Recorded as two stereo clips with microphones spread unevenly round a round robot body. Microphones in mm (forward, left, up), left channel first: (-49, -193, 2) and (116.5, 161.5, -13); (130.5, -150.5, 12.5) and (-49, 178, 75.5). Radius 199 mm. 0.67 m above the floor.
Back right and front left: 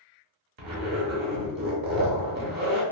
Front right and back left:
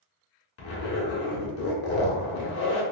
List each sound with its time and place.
0.6 s a zipper: straight ahead, 0.8 m